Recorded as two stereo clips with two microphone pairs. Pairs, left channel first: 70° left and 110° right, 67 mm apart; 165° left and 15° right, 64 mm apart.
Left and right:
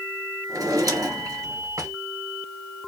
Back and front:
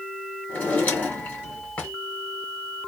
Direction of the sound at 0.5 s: 135° right.